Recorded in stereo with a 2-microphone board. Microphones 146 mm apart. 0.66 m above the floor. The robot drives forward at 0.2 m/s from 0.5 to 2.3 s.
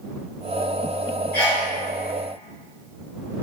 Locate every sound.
1.3 s a sneeze: 25° left (ahead or behind), 1.8 m; by 1.7 s 20° left (ahead or behind), 1.9 m